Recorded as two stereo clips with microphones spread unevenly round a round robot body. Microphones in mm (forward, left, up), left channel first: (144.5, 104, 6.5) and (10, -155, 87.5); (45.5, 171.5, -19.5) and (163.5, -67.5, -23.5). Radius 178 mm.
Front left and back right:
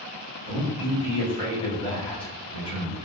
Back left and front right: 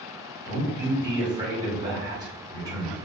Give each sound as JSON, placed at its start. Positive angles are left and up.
{"t": 0.5, "sound": "a man speaking", "azimuth_deg": 10, "distance_m": 1.6}